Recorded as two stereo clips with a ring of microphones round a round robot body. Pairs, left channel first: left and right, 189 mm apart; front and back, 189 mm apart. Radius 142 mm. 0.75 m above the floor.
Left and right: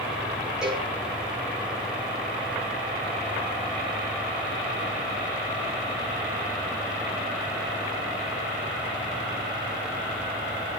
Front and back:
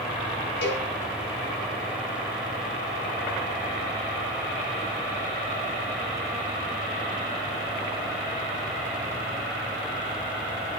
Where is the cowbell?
5° right, 3 m.